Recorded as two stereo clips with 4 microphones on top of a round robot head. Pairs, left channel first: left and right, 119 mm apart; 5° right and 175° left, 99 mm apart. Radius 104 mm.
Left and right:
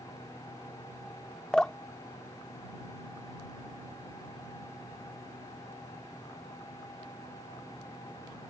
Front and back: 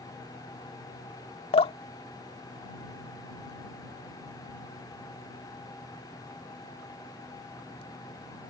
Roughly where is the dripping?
Ahead.